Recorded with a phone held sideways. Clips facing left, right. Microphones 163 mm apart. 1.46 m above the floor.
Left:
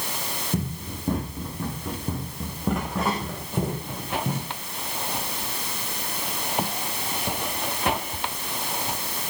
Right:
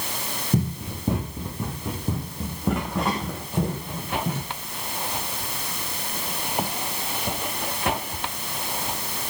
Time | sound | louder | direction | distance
0.5 | running footsteps | right 5 dB | 15° right (ahead or behind) | 4.5 m